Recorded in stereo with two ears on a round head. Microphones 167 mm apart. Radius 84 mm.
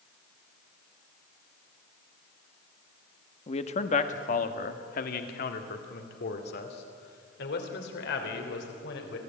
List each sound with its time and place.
3.5 s a man speaking: 35° left (ahead or behind), 1.4 m; by 9.2 s 65° left (ahead or behind), 4 m